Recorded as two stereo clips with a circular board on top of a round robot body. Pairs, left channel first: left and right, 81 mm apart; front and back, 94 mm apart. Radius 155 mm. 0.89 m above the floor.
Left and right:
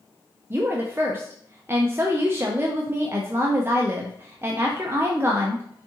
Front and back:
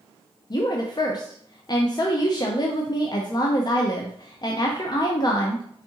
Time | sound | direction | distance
0.5 | a woman speaking | 35° right | 0.7 m